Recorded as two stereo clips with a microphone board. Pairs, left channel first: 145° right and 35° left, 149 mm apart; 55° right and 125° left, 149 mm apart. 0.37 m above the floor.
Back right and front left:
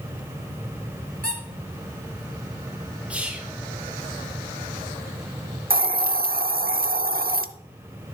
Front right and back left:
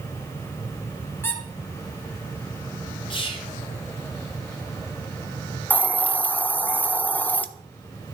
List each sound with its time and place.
1.2 s a squeak: 20° left, 2 m
3.1 s whispering: 40° right, 1.0 m
5.7 s a hiss: 25° left, 0.6 m